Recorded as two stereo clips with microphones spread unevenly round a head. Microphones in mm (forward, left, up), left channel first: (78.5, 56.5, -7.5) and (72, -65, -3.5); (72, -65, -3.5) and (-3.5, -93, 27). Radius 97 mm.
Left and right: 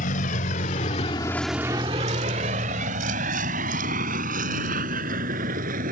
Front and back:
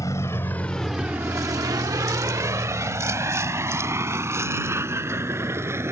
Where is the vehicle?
100° left; by 5.9 s 105° right.